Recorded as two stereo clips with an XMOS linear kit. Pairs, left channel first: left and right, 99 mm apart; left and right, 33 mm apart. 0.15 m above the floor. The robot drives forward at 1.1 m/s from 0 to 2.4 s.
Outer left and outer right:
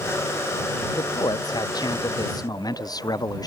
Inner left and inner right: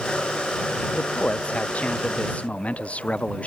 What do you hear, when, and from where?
0.9 s a man speaking: 45° left (ahead or behind); by 3.5 s 40° left (ahead or behind)